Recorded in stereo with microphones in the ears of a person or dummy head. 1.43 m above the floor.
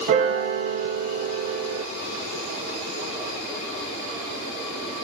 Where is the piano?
50° right (ahead or behind), 0.9 m.